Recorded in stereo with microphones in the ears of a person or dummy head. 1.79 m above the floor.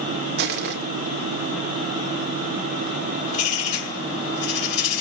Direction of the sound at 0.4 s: 60° right (ahead or behind).